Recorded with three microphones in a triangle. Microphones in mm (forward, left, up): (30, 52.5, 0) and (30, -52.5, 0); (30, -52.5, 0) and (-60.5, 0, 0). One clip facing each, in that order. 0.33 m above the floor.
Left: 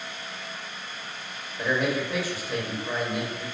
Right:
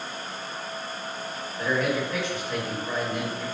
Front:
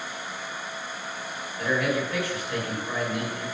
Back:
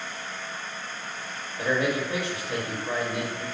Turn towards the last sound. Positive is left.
turn(degrees=160)